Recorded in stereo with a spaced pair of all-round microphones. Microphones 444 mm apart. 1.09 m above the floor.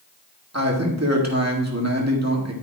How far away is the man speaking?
About 2.0 m.